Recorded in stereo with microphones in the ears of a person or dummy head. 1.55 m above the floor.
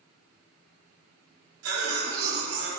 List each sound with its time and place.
1.6 s a cough: 80° right, 2.5 m